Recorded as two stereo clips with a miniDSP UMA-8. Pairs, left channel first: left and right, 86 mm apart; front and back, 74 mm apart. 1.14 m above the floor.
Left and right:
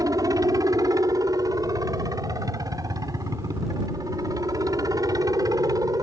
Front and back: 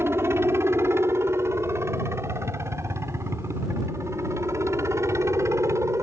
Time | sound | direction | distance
0.0 | a helicopter | 130° right | ?